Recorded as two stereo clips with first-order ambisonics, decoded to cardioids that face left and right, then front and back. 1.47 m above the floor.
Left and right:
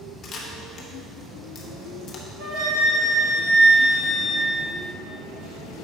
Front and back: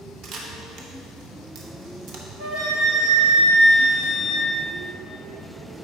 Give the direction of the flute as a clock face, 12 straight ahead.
4 o'clock.